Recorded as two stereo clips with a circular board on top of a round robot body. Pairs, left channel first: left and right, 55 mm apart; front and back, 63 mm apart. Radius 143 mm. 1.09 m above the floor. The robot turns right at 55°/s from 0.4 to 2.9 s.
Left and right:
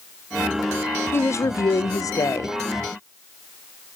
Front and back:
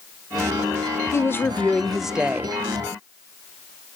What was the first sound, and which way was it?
A woman speaking, 45° left.